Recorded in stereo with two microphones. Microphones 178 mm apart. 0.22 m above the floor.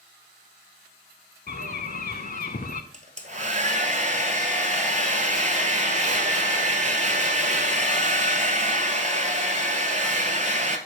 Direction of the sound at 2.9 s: 45° right (ahead or behind).